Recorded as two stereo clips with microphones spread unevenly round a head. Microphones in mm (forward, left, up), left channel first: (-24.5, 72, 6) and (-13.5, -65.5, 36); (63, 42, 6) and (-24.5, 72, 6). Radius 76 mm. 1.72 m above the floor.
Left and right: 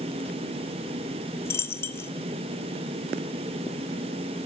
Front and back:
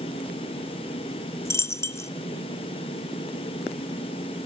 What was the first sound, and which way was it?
A dropped coin, 10° left.